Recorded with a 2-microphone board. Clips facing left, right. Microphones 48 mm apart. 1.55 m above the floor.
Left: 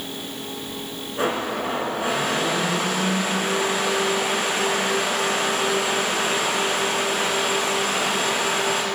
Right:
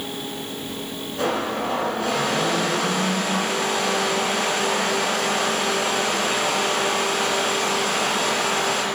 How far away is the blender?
About 3.5 m.